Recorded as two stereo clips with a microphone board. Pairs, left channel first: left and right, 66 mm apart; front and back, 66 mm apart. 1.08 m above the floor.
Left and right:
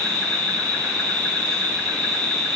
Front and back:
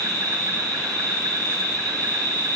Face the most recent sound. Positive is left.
turn(degrees=160)